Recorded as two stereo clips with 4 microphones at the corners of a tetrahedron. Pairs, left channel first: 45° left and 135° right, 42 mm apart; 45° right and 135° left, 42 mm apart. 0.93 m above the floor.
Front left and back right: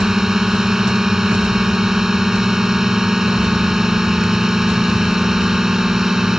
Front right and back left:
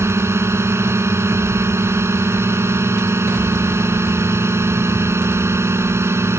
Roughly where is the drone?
Behind left.